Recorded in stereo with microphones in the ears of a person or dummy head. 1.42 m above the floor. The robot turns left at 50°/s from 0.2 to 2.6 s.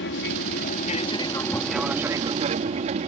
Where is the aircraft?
75° left; by 3.1 s 45° right.